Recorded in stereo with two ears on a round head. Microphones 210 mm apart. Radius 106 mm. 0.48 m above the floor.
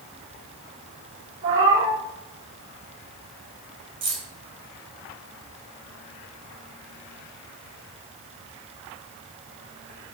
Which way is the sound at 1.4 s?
55° right (ahead or behind).